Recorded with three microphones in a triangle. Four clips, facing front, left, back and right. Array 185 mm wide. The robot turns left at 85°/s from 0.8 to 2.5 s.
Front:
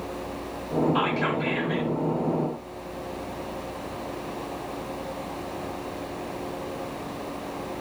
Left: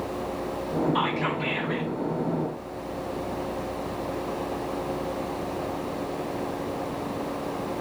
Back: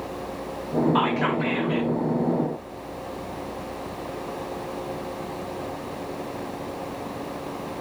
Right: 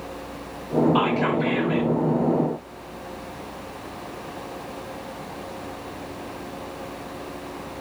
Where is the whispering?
155° right, 1.9 m; by 1.9 s 125° left, 1.9 m.